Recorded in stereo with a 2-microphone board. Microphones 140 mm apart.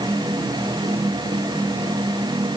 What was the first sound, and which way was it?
Only background noise.